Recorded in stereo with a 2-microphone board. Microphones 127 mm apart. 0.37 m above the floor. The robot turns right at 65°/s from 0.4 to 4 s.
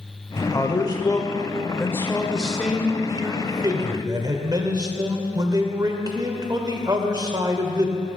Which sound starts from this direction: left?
A man speaking, at 0.4 s.